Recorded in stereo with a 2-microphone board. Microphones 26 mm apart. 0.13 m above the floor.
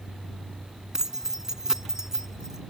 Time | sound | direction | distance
0.9 | keys jangling | 25° right (ahead or behind) | ?